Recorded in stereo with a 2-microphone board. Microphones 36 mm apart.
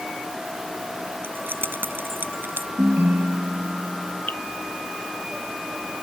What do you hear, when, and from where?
1.2 s keys jangling: 85° right
2.8 s a ringtone: 60° right (ahead or behind)
4.3 s dripping: 60° left (ahead or behind)